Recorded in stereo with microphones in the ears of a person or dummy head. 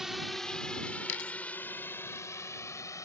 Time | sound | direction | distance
0.0 | a drone | 5° right (ahead or behind) | ?
1.1 | a dropped coin | 65° left (ahead or behind) | ?